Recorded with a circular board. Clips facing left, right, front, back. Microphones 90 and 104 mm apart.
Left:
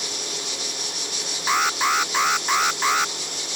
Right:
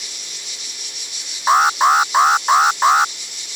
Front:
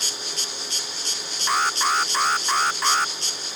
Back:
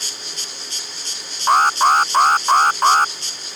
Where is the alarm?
140° right.